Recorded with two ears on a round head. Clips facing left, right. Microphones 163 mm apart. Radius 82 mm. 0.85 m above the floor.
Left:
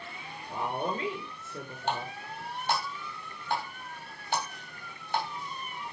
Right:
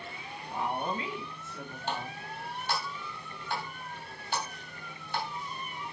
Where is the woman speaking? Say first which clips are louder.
Left 1 dB; 35° left (ahead or behind), 3.5 m.